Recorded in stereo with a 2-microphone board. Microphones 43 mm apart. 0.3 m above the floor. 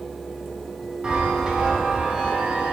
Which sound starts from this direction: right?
A chime, at 1.0 s.